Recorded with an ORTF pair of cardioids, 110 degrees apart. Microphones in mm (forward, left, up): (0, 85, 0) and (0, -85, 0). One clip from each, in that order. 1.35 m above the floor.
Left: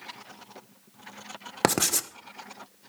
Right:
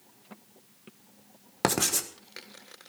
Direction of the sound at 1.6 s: 30° left.